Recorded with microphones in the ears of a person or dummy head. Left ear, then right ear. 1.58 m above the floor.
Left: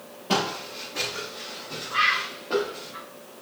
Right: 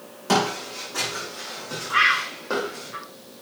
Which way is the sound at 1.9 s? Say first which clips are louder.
Right 3 dB; 45° right (ahead or behind).